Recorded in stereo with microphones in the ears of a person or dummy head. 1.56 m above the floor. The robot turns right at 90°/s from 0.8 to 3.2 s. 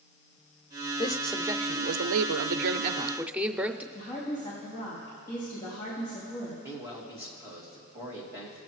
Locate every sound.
1.0 s a man speaking: 155° left, 0.5 m; by 3.8 s 5° right, 0.5 m
3.9 s a woman speaking: 15° left (ahead or behind), 3 m
6.6 s a man speaking: 15° right (ahead or behind), 2.5 m